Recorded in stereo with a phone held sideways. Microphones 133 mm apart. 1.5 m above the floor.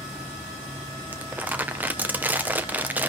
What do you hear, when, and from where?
1.1 s crumpling: 15° right (ahead or behind), 1.2 m